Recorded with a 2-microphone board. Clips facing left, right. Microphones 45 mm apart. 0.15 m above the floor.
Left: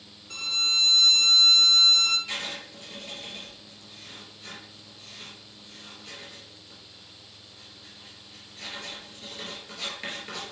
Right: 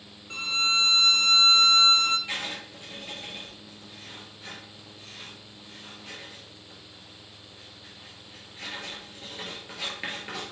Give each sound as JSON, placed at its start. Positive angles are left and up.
{"t": 0.3, "sound": "a violin", "side_deg": -25, "distance_m": 0.7}
{"t": 2.3, "sound": "writing", "side_deg": -15, "distance_m": 2.5}